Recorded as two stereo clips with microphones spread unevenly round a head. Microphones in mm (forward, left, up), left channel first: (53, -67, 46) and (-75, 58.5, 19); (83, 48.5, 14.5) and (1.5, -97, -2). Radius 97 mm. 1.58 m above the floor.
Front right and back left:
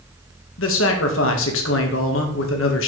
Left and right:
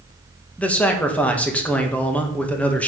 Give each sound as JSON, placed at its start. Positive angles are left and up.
{"t": 0.6, "sound": "a man speaking", "azimuth_deg": -20, "distance_m": 1.6}